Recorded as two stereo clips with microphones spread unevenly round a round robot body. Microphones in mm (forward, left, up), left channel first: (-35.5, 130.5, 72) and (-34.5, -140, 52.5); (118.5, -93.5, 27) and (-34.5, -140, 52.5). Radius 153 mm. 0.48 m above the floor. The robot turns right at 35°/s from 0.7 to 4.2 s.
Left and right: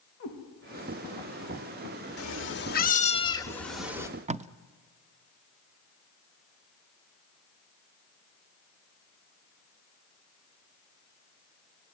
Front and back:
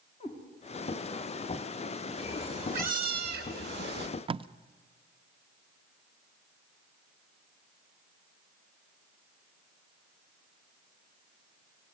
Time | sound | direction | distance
0.2 | a cat meowing | 125° left | 6 m
2.2 | a cat meowing | 125° left | 1.0 m
4.3 | tape being pulled | 120° right | 0.6 m